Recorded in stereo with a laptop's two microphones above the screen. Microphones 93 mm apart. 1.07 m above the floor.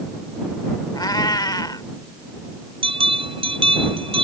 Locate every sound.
0.9 s a cat meowing: 50° left (ahead or behind)
2.8 s a bell: 75° right (ahead or behind)